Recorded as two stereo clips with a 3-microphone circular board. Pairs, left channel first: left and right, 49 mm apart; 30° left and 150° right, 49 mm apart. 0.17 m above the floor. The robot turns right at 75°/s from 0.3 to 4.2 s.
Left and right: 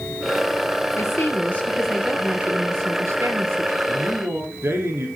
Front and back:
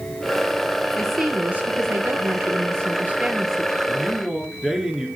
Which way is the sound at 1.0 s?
105° left.